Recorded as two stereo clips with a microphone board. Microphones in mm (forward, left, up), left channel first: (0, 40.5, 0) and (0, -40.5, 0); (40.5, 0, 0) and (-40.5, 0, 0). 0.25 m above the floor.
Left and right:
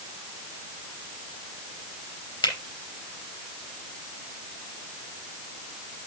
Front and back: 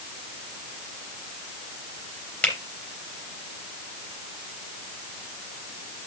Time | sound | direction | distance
2.4 | a finger snap | 75° left | 4 m